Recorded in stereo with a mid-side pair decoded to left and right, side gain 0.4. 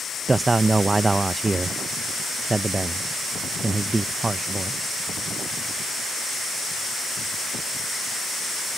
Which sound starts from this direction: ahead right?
A man speaking, at 0.3 s.